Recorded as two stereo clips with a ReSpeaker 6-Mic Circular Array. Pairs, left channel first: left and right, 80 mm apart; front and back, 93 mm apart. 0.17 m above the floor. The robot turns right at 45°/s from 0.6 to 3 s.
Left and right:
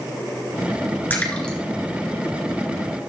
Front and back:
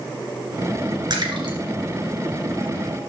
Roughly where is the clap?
I don't hear a clap.